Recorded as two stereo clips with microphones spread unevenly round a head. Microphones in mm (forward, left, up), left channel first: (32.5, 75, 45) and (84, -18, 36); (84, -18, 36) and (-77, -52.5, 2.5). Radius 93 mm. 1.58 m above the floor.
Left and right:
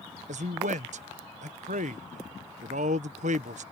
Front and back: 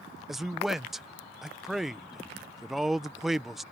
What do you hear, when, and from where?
0.3 s a man speaking: 80° right